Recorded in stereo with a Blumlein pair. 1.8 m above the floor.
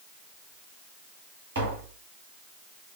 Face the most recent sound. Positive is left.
turn(degrees=-65)